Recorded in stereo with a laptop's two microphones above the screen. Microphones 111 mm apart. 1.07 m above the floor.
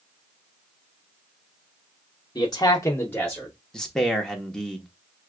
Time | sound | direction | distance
2.4 | a man speaking | 40° left (ahead or behind) | 1.0 m
3.7 | a man speaking | 5° left (ahead or behind) | 0.8 m